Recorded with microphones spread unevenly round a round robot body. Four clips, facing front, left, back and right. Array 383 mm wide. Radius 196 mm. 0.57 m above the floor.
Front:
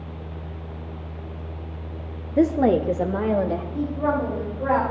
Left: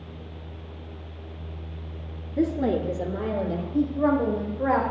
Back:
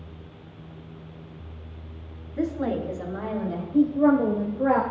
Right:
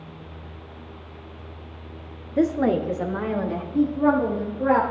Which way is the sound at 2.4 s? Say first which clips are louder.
Right 3 dB, front 8 dB; 15° right.